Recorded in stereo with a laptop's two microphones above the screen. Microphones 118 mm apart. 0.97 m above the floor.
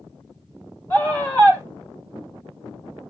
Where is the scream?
20° left (ahead or behind), 4.5 m.